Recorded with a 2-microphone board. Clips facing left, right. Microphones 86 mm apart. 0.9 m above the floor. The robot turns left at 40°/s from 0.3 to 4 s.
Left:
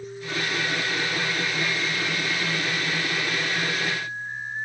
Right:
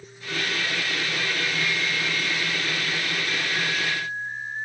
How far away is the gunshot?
No gunshot in this recording.